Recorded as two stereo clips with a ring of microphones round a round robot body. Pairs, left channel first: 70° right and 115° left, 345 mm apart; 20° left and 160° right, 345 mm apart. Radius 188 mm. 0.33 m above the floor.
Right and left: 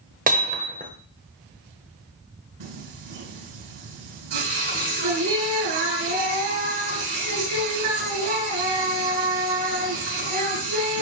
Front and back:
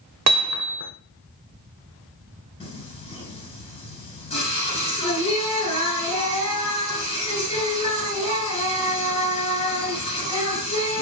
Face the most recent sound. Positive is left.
turn(degrees=95)